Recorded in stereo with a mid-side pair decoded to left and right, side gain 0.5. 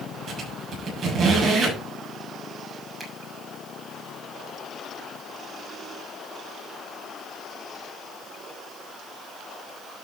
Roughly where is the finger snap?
Ahead.